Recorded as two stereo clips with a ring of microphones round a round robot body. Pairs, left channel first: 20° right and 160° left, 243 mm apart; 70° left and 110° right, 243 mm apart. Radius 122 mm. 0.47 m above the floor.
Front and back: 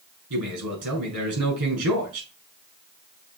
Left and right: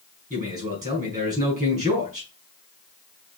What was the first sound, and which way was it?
A man speaking, 175° right.